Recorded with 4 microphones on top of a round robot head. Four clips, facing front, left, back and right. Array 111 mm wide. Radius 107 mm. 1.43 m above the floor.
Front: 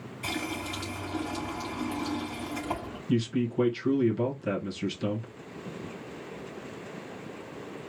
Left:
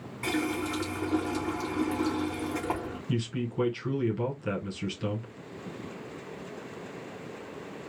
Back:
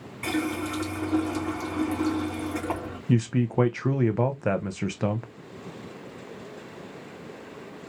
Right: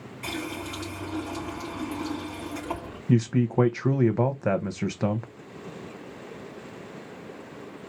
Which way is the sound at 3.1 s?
135° right.